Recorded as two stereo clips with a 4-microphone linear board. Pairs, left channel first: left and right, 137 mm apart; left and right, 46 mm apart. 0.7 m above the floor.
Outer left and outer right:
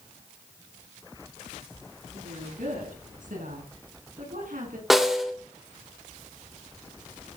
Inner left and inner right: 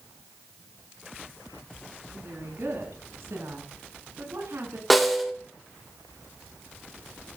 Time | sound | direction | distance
2.1 | a woman speaking | 70° right (ahead or behind) | 8.5 m
4.9 | a snare drum | centre (ahead or behind) | 2.5 m